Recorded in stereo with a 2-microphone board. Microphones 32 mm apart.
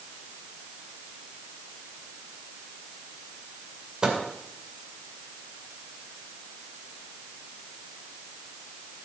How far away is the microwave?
About 2.5 m.